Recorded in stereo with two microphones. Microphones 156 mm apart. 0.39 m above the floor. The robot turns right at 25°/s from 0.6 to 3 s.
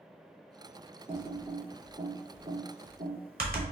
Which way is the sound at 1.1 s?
35° right (ahead or behind).